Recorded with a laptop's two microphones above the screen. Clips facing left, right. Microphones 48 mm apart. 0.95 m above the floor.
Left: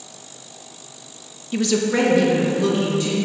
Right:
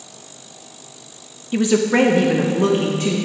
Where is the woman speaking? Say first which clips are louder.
Right 3 dB; 10° right (ahead or behind), 0.6 m; by 3.1 s 45° right (ahead or behind), 1.3 m.